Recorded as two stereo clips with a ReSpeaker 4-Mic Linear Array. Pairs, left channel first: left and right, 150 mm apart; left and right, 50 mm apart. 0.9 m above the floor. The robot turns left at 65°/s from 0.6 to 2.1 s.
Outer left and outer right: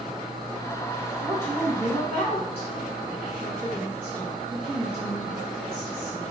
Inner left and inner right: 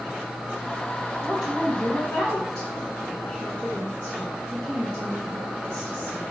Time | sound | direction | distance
1.2 | a woman speaking | 135° right | 1.1 m